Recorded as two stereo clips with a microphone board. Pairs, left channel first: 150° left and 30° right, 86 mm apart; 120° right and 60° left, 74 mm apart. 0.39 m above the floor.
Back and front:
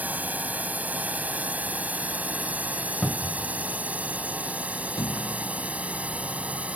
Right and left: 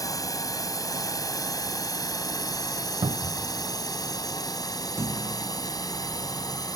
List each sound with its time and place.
0.0 s a drone: 100° right; by 6.8 s 105° right
3.0 s a cupboard door: 75° left
5.0 s a thud: 110° left